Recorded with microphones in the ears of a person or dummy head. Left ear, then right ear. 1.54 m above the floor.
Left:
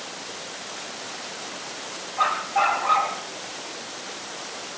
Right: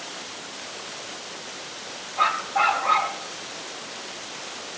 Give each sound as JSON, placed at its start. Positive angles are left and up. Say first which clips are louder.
{"t": 2.2, "sound": "a dog barking", "louder": "even", "side_deg": -5, "distance_m": 4.0}